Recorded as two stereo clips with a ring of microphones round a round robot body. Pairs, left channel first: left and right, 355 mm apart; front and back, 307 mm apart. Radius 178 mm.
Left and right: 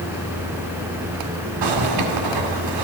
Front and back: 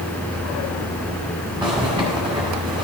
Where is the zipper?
105° right, 1.9 m.